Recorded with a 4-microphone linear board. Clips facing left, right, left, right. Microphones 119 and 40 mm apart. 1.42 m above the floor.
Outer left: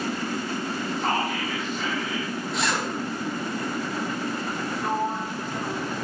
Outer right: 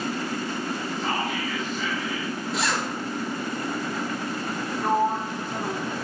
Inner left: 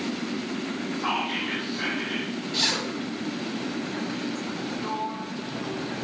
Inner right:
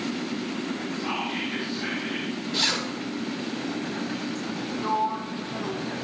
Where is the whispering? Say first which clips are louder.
Outer left 3 dB, inner left 4 dB; 50° left (ahead or behind), 3.5 m.